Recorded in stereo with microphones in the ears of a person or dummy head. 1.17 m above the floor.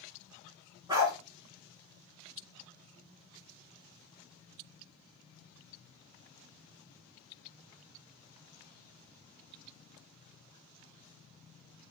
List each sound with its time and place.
0.9 s a dog barking: 20° right (ahead or behind), 4 m